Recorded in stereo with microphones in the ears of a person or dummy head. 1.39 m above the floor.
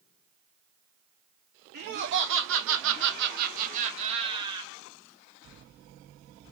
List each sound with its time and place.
1.7 s laughter: 45° right (ahead or behind), 0.9 m; by 4.7 s 20° right (ahead or behind), 1.2 m